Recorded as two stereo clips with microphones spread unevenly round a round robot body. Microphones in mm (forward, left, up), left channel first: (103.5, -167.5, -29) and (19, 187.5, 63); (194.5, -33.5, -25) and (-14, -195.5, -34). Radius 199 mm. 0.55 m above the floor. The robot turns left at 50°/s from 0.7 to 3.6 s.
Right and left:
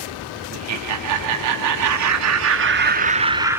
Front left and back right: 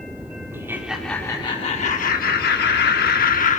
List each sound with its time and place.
0.5 s laughter: 145° left, 1.4 m; by 3.6 s straight ahead, 1.4 m